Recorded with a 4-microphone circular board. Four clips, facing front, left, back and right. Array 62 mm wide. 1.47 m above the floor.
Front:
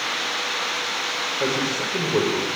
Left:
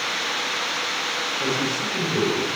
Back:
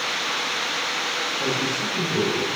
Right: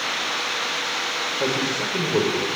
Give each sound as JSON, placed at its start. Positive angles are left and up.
{"t": 1.4, "sound": "a man speaking", "azimuth_deg": -40, "distance_m": 5.5}